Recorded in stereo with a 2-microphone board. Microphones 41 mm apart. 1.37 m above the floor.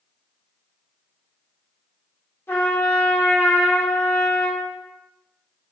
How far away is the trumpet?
About 1.6 m.